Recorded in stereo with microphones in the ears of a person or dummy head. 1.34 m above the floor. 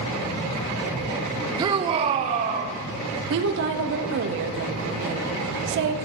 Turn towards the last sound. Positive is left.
turn(degrees=-70)  # may be behind; listen again after turning